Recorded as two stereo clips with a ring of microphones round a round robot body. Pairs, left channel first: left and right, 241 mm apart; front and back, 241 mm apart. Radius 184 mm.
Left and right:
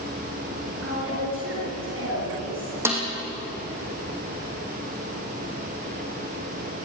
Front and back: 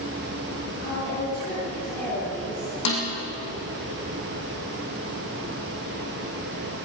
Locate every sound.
0.8 s a woman speaking: 60° right, 6 m
2.9 s a snare drum: 10° right, 5 m